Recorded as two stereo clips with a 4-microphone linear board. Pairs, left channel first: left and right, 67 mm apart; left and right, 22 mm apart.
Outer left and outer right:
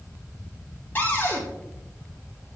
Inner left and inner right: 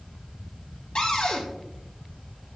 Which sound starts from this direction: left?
A cupboard door, at 0.9 s.